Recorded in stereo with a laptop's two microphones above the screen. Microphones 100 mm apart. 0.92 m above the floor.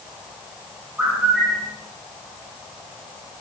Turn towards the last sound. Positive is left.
turn(degrees=-10)  # may be behind; listen again after turning